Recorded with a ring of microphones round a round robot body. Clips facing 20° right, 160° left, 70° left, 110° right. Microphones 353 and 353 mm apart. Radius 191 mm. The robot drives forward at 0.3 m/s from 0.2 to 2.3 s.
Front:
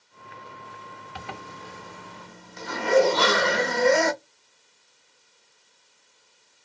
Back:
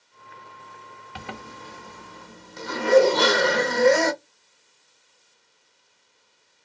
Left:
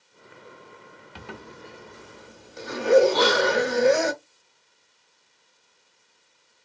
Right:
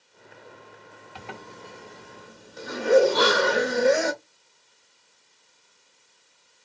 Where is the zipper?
135° left, 0.5 m; by 4.1 s 155° left, 0.8 m.